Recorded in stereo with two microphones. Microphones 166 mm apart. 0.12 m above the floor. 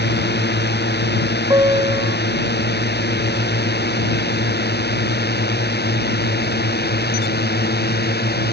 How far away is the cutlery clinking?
No cutlery clinking in this recording.